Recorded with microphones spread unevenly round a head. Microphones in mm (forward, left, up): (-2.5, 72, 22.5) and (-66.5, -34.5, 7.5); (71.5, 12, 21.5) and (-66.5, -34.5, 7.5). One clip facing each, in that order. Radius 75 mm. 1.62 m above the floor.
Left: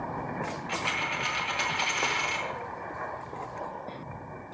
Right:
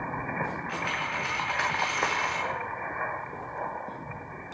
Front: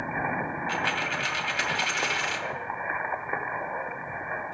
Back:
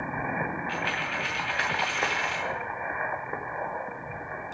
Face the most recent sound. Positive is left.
turn(degrees=-10)